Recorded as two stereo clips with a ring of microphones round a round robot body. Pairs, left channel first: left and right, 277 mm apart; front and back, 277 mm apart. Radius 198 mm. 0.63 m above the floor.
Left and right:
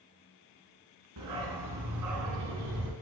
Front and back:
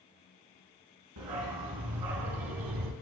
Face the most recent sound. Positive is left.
turn(degrees=-150)